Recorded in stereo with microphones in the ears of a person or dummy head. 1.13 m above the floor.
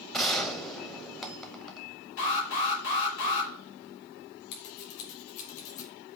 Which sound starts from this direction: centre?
A gunshot, at 0.1 s.